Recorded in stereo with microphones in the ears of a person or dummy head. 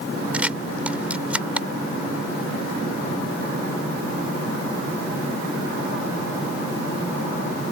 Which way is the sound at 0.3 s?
10° right (ahead or behind).